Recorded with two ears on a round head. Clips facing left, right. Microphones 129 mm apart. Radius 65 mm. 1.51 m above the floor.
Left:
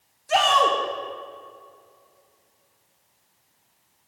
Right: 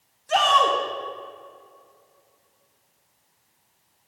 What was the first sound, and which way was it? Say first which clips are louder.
A shout: even; 5° left (ahead or behind).